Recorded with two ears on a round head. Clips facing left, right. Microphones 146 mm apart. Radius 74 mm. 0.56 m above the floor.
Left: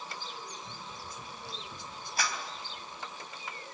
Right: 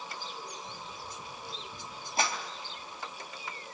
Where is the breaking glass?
I don't hear breaking glass.